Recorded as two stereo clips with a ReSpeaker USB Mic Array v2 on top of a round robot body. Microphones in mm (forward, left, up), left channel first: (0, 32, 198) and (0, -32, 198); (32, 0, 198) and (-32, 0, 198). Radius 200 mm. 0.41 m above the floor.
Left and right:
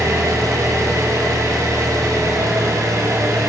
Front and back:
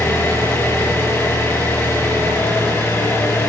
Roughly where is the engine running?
Ahead right.